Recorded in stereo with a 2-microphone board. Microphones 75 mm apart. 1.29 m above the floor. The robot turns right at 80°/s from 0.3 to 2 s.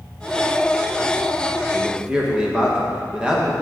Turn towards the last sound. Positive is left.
turn(degrees=-10)  # may be behind; listen again after turning